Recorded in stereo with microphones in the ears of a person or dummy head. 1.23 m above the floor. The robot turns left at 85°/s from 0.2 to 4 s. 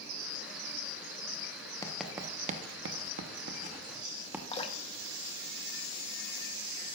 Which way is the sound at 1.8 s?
5° left (ahead or behind).